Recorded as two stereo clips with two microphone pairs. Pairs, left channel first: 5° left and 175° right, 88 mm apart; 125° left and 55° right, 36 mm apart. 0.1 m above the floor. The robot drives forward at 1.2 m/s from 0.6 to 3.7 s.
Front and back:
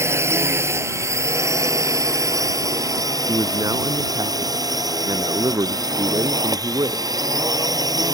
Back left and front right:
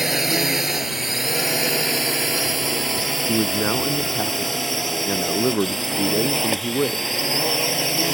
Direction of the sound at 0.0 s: 135° right.